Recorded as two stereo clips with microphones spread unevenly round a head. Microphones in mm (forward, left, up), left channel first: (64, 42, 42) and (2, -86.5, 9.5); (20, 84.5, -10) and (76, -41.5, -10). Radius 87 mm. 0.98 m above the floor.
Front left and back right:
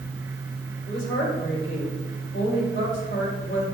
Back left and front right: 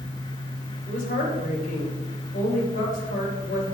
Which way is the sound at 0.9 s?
90° left.